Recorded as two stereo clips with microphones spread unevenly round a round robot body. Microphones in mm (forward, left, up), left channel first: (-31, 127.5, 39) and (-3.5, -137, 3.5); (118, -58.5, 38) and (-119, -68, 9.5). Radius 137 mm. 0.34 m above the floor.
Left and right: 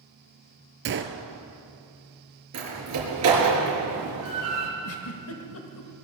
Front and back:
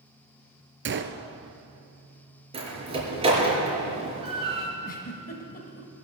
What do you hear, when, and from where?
0.8 s a gunshot: 135° right, 1.1 m
2.5 s a door slam: 110° right, 5.5 m
4.8 s a giggle: 60° left, 1.2 m